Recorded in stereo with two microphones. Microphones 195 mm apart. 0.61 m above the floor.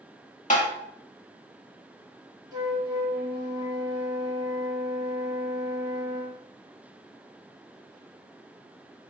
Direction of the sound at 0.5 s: 40° left (ahead or behind).